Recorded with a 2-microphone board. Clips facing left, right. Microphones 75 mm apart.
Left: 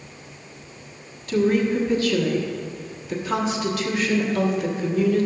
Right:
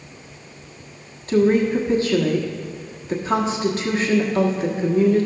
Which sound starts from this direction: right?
A woman speaking, at 1.3 s.